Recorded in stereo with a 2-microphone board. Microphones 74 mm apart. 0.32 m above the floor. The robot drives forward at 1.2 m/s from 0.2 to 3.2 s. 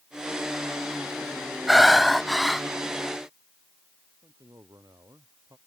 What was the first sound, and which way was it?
Breathing, 5° right (ahead or behind).